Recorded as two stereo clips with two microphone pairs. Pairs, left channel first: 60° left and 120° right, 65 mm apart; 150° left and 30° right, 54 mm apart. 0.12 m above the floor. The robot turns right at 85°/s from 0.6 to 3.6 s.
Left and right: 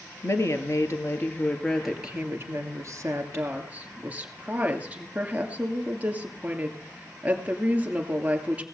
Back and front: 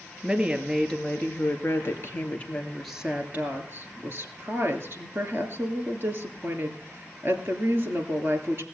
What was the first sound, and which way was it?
A woman speaking, 45° left.